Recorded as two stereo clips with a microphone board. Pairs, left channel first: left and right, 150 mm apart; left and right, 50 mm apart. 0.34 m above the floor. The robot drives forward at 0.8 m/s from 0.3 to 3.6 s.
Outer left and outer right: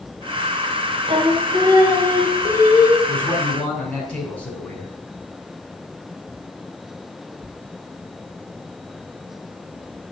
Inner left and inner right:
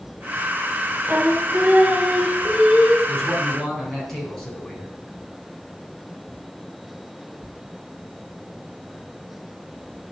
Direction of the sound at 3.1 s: 10° left (ahead or behind).